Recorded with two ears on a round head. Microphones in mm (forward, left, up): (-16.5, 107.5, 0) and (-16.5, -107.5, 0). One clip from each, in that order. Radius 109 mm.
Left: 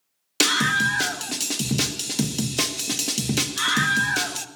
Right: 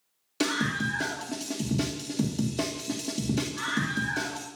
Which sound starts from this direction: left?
A scream, at 0.4 s.